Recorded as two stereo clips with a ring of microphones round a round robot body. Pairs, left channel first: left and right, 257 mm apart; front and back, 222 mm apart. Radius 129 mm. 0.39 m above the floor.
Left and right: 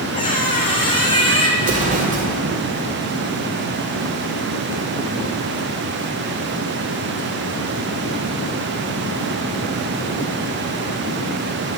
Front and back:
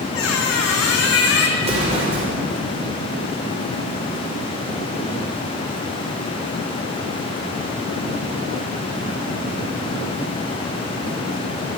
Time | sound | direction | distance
0.1 | a squeak | 20° left | 1.5 m
1.6 | an explosion | 130° right | 1.6 m